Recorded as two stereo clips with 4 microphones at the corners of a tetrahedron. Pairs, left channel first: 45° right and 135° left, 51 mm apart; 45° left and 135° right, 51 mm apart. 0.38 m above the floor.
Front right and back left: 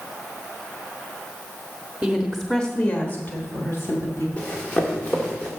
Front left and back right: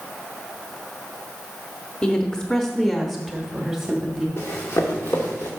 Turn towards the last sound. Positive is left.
turn(degrees=20)